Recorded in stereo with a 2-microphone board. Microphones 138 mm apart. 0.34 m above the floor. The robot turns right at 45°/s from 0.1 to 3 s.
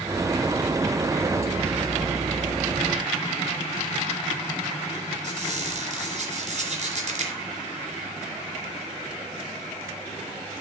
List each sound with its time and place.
5.2 s a squeak: 55° right (ahead or behind), 3 m